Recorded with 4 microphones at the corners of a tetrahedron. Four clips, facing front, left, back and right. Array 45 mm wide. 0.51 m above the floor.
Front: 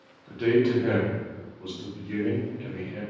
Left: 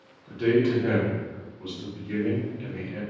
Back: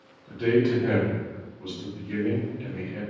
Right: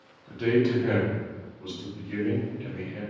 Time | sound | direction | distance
0.3 | a man speaking | straight ahead | 0.8 m